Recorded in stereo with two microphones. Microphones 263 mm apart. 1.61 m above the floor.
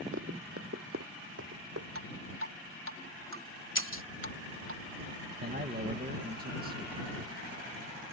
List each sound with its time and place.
0.1 s running footsteps: 55° right (ahead or behind); by 1.9 s 65° right (ahead or behind)
1.9 s dripping: 55° right (ahead or behind)
3.8 s breaking glass: 50° left (ahead or behind)
5.4 s a man speaking: 35° right (ahead or behind)